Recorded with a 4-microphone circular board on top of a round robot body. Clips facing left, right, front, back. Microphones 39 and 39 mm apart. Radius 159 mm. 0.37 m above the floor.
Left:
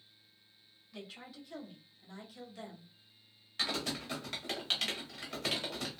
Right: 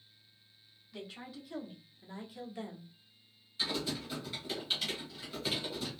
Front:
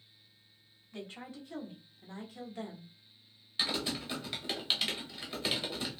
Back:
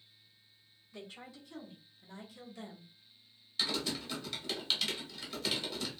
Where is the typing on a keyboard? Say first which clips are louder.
Even, front 1 dB; 65° left, 1.0 m.